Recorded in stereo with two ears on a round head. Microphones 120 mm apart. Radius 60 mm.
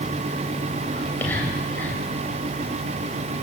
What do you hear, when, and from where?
0.9 s whispering: 15° left (ahead or behind), 3 m